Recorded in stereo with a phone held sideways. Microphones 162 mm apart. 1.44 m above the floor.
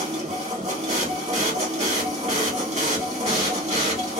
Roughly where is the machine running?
Right.